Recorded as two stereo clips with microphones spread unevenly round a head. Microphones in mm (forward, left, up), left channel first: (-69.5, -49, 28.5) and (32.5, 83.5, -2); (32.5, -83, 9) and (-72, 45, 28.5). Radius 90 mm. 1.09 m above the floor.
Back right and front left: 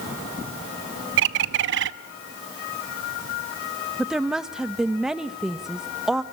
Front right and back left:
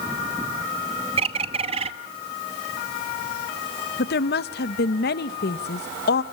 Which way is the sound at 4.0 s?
30° right.